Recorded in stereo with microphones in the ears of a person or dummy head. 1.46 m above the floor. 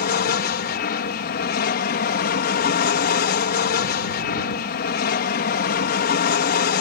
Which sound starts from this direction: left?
An aircraft, at 0.0 s.